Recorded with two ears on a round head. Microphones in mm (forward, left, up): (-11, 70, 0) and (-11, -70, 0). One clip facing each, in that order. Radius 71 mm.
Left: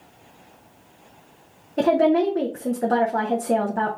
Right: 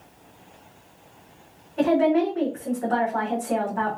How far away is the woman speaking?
About 0.7 m.